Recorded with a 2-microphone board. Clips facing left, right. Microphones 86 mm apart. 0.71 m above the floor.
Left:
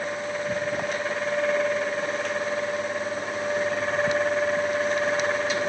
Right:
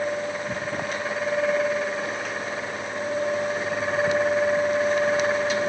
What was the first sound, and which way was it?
Only background noise.